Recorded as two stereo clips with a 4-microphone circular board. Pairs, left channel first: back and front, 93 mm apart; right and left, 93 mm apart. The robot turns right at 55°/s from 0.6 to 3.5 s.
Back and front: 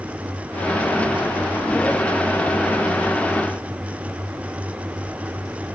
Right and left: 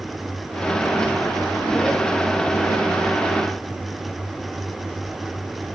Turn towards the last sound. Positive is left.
No sound to turn to.